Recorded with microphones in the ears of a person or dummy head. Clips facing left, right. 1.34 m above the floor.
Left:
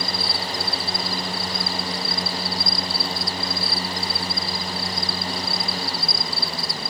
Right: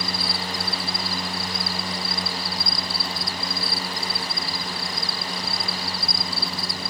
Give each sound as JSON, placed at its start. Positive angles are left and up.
{"t": 0.0, "sound": "an insect", "side_deg": -65}